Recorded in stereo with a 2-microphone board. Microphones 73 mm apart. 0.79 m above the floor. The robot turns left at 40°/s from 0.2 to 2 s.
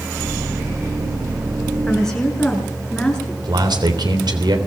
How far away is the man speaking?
About 3.5 m.